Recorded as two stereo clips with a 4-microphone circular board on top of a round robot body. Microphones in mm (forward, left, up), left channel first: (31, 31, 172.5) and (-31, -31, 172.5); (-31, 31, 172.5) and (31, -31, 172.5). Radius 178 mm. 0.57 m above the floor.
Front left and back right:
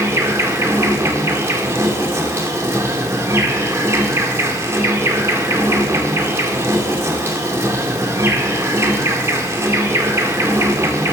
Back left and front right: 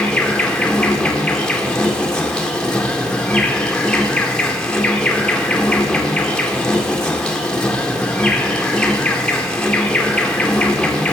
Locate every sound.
0.0 s an insect: 150° right, 2 m